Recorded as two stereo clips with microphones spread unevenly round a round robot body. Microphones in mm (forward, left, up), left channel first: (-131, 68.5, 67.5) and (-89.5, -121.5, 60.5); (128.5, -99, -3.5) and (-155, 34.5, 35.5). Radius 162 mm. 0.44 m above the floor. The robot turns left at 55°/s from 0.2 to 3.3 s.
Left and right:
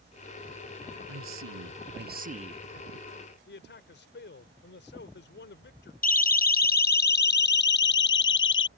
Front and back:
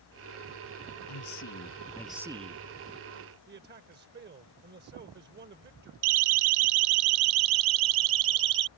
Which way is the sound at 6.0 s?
145° left.